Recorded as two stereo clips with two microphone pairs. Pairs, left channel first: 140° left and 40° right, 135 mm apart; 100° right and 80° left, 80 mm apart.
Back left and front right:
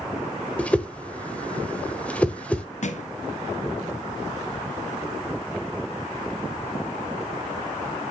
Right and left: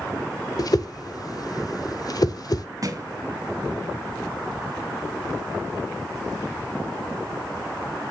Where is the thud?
120° left, 1.3 m.